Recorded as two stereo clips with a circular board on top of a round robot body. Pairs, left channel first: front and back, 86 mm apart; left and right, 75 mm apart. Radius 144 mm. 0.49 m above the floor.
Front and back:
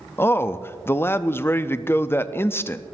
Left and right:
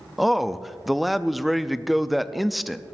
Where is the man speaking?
Straight ahead, 0.7 m.